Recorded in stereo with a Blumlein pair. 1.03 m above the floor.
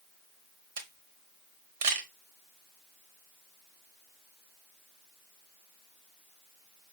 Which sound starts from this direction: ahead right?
A camera shutter, at 0.8 s.